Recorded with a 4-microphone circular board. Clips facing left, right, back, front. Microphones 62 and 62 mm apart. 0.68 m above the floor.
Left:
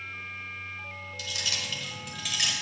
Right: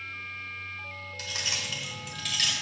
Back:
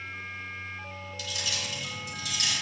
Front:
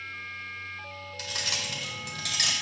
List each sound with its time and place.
1.2 s keys jangling: 45° right, 1.5 m; by 2.5 s 15° left, 2 m